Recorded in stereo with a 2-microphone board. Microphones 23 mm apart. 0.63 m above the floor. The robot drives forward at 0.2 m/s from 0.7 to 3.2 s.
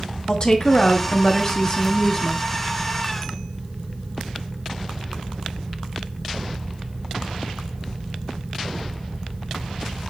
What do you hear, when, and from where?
0.3 s a woman speaking: 30° left (ahead or behind), 0.7 m